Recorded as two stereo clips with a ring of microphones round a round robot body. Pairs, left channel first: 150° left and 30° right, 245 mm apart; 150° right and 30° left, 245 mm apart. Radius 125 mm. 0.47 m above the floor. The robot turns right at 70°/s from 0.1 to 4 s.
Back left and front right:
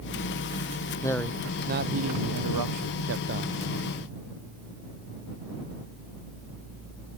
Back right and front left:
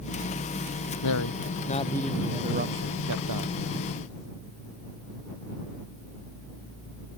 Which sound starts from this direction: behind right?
A man speaking, at 1.0 s.